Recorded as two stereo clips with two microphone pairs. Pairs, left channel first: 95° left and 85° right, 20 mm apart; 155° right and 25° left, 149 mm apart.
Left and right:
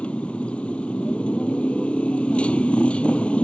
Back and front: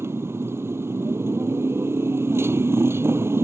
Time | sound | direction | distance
0.0 | a motorcycle | 100° left | ?